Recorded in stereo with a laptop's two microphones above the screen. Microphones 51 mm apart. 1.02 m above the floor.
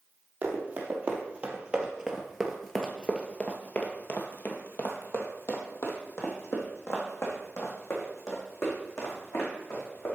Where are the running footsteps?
40° right (ahead or behind), 1.7 m; by 10.2 s 65° left (ahead or behind), 4 m.